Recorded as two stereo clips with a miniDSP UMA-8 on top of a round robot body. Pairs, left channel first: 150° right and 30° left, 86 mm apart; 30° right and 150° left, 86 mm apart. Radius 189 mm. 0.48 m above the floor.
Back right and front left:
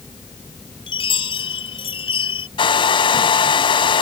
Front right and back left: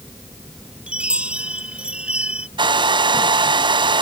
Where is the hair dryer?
Straight behind.